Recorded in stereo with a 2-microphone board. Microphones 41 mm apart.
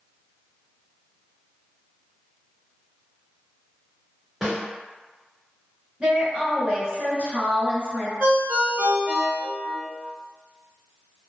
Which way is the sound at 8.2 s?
55° right (ahead or behind).